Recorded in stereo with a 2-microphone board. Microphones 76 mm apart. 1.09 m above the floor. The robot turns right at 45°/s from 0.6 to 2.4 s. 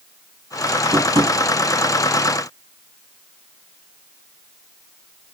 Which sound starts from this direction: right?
Tapping, at 0.9 s.